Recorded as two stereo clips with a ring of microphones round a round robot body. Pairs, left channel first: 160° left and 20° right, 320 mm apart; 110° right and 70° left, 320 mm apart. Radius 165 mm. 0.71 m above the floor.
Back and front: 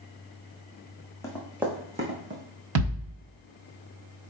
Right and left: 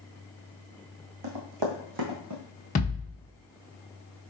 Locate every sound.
1.2 s running footsteps: 75° left, 1.8 m; by 2.4 s 30° left, 1.7 m
2.8 s a thud: 45° right, 1.2 m